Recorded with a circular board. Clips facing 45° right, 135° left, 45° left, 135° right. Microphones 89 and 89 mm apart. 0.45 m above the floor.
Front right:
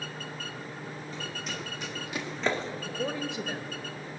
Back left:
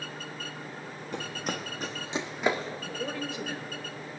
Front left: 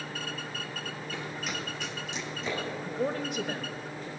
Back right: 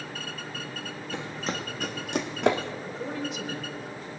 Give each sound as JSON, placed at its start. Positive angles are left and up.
{"t": 1.1, "sound": "running footsteps", "azimuth_deg": 155, "distance_m": 1.4}
{"t": 2.8, "sound": "a woman speaking", "azimuth_deg": 20, "distance_m": 1.4}